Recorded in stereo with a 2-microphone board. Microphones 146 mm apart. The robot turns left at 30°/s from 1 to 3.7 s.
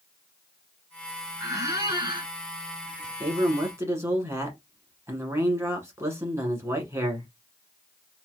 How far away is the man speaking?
About 1.1 m.